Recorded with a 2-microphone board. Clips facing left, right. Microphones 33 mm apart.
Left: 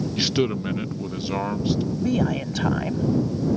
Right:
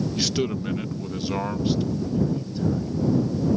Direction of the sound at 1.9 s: 80° left.